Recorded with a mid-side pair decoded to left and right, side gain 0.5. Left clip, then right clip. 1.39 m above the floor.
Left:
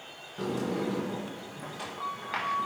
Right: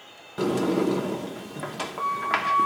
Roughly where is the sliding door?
Ahead right.